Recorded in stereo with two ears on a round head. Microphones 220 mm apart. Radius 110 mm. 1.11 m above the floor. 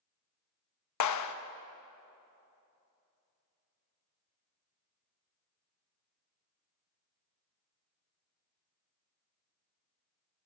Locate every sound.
1.0 s a clap: 80° left, 1.1 m